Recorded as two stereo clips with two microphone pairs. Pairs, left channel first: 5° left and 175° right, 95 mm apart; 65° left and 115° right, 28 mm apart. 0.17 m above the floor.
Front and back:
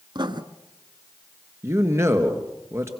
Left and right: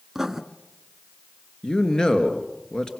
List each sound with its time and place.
0.1 s writing: 170° left, 1.1 m
1.6 s a man speaking: 125° left, 3 m